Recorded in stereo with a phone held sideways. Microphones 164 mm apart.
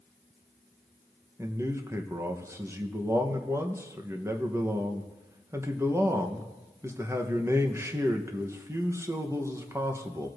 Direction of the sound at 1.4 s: 15° right (ahead or behind).